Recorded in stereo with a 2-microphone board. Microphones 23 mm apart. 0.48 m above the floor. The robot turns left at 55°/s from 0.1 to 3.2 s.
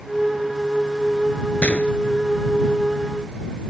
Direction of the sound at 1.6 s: 80° left.